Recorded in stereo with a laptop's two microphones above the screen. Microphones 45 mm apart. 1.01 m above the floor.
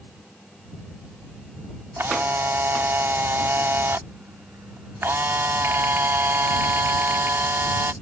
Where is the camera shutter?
65° right (ahead or behind).